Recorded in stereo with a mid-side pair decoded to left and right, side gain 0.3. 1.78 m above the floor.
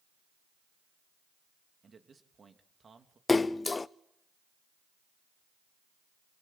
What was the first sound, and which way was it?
A man speaking, 55° right.